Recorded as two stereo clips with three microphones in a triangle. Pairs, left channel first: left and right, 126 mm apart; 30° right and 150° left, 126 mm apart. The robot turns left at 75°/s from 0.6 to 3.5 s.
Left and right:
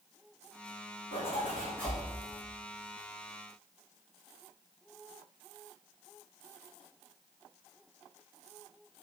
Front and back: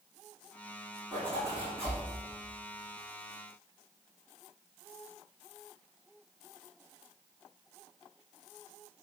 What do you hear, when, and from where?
1.1 s a zipper: 60° left, 7 m; by 2.0 s 10° right, 7 m